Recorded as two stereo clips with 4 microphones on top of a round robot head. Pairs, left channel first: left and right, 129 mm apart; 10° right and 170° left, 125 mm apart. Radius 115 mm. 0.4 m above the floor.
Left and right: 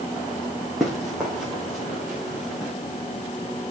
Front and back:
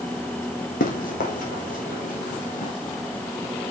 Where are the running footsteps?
5° right, 2 m; by 2.7 s straight ahead, 3 m.